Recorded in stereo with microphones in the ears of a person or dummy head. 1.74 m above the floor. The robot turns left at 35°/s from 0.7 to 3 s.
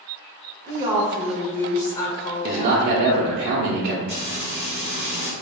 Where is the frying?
35° left (ahead or behind), 1.9 m.